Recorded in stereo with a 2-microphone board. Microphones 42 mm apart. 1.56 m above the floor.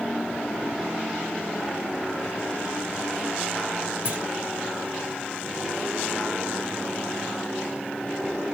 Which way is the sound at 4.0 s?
25° right (ahead or behind).